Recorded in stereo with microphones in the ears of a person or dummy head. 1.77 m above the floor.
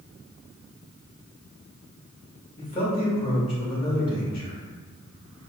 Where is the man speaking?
30° left (ahead or behind), 1.7 m.